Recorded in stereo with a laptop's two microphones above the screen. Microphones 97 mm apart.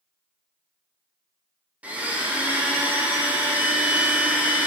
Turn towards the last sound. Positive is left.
turn(degrees=-15)  # may be behind; listen again after turning